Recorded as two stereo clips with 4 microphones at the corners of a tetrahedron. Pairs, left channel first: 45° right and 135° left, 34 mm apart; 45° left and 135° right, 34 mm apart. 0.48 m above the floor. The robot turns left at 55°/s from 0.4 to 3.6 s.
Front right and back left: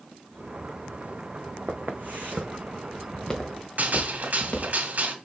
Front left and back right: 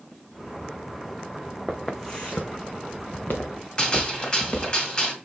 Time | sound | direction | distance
1.7 | footsteps | 150° left | 1.3 m
3.8 | a gunshot | 110° left | 1.8 m